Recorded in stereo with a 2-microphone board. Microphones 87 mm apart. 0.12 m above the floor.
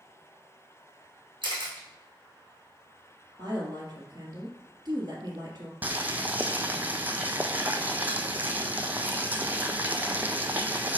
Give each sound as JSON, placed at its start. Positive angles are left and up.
{"t": 1.4, "sound": "a camera shutter", "side_deg": -65, "distance_m": 3.0}
{"t": 3.4, "sound": "a woman speaking", "side_deg": -50, "distance_m": 3.0}
{"t": 5.8, "sound": "boiling", "side_deg": -20, "distance_m": 0.8}